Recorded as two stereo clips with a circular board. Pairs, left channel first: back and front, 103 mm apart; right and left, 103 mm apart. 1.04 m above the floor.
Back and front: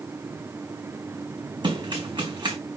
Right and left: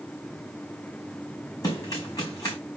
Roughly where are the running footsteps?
Ahead right.